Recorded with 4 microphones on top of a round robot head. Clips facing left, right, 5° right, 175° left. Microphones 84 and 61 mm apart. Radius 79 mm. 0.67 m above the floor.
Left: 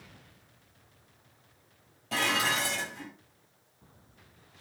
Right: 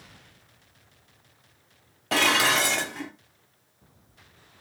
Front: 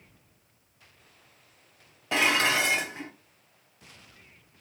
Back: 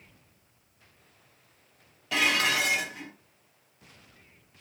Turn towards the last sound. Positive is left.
turn(degrees=-70)